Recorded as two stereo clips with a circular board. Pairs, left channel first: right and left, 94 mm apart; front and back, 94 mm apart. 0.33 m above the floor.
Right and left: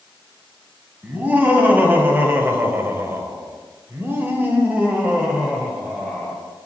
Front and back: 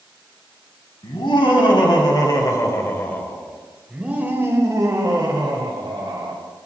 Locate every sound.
1.0 s laughter: 20° left, 2.5 m; by 6.4 s 170° left, 2.5 m